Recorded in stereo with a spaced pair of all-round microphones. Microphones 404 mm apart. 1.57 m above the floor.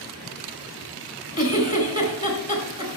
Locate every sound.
1.4 s a giggle: 40° left (ahead or behind), 4 m